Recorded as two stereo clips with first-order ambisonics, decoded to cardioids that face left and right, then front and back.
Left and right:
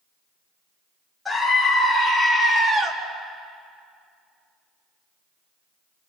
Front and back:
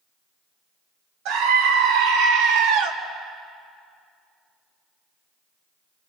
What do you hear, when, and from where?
1.2 s a scream: 175° left, 3 m; by 2.9 s 165° right, 2.5 m